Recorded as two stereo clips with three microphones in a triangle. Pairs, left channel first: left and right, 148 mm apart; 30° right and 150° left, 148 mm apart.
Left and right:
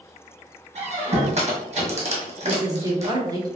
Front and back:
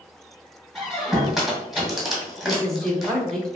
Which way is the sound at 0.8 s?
120° right.